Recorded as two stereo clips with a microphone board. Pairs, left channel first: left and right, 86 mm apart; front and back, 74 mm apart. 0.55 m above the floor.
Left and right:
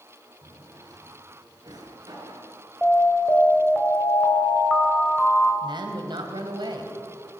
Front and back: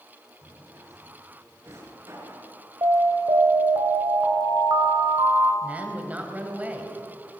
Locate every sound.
0.4 s a drawer: 130° right, 4 m
2.8 s an alarm: 165° left, 3.5 m
5.6 s a woman speaking: 110° right, 3 m